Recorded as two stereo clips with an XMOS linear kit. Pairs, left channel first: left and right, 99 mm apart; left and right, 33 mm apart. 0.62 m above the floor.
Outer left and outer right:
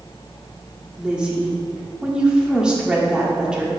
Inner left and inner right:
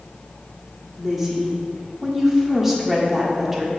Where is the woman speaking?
10° right (ahead or behind), 1.5 m.